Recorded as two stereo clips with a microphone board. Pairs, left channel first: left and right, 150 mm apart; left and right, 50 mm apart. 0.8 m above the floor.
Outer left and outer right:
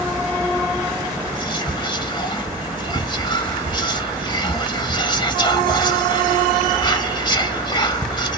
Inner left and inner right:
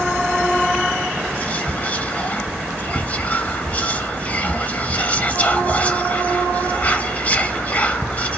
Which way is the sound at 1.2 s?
30° left (ahead or behind).